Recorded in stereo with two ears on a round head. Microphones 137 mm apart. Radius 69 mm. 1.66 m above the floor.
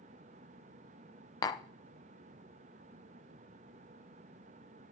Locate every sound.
1.4 s tapping: 25° left (ahead or behind), 0.7 m